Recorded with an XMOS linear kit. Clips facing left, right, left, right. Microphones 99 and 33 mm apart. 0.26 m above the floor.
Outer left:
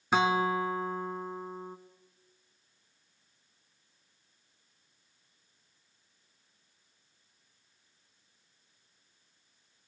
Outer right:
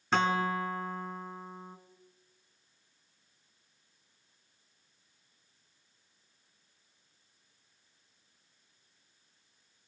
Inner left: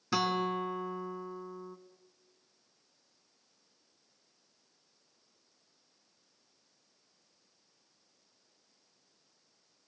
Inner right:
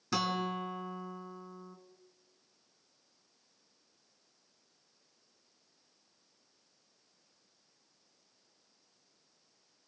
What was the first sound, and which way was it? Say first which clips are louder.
A guitar: outer left 2 dB, inner left 3 dB; 10° left (ahead or behind).